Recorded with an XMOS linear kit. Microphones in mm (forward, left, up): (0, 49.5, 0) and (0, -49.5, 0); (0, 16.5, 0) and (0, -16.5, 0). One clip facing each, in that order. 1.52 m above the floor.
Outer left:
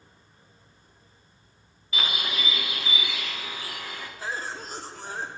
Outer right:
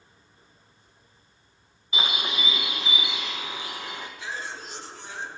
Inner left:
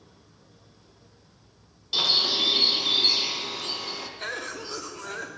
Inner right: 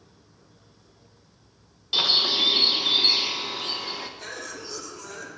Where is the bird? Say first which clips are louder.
Outer right 1 dB, inner right 2 dB; 20° right (ahead or behind), 0.6 m.